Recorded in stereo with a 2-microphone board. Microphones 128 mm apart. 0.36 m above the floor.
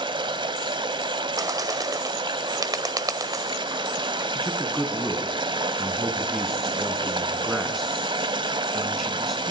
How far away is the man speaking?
About 3 m.